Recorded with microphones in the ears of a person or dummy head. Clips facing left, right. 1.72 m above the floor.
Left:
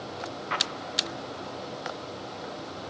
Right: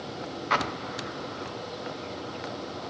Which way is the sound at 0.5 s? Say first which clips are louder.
Right 4 dB; 55° right (ahead or behind).